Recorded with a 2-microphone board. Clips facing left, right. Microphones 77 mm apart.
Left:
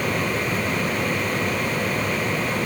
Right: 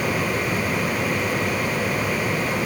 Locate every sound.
Only background noise.